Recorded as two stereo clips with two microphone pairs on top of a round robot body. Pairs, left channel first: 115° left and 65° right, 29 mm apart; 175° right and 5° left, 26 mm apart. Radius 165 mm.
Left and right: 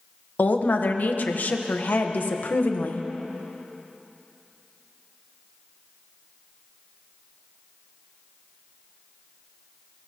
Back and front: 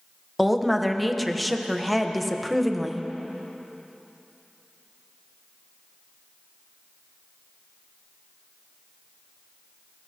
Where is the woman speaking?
90° left, 1.1 m.